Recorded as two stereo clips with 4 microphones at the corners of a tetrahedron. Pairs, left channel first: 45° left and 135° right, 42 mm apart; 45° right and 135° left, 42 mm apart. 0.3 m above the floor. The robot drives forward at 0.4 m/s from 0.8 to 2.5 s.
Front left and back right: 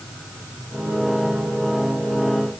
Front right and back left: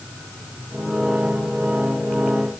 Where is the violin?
I don't hear a violin.